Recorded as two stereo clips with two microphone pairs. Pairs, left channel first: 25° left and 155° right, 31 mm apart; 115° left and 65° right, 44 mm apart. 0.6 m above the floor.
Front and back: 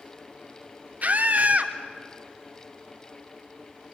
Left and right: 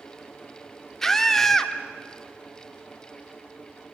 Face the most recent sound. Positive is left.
turn(degrees=-165)